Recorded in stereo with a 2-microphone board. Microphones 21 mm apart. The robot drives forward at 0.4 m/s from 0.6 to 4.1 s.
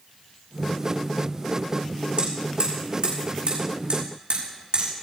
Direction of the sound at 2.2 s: 60° right (ahead or behind).